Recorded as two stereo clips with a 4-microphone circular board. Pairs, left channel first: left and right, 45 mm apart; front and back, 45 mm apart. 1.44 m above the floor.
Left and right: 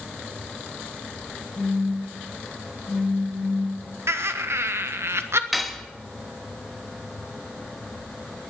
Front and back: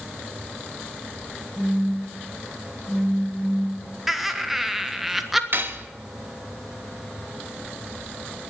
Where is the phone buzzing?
90° left, 1.6 m.